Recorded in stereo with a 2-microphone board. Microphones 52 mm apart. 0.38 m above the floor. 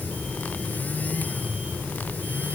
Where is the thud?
No thud in this recording.